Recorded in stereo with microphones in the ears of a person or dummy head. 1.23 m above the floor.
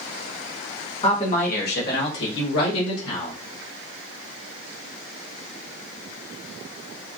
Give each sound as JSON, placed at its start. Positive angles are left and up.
{"t": 1.0, "sound": "a man speaking", "side_deg": 40, "distance_m": 1.0}